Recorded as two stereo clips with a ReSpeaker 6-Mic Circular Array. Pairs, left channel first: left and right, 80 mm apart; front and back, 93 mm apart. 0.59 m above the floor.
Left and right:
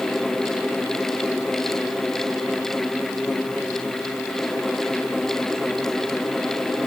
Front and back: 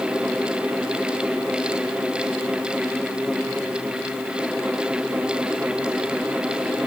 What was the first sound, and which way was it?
Only background noise.